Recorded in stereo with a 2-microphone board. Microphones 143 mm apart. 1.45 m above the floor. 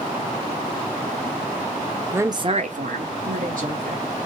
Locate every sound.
2.1 s a woman speaking: 15° right (ahead or behind), 0.7 m; by 4.0 s 65° right (ahead or behind), 1.5 m